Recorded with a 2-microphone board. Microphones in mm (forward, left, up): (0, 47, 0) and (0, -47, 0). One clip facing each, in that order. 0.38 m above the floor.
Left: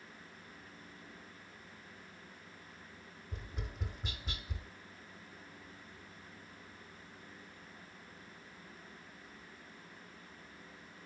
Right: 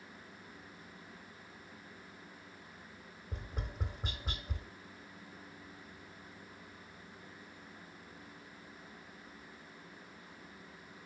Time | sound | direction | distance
3.3 | tapping | 45° right (ahead or behind) | 1.2 m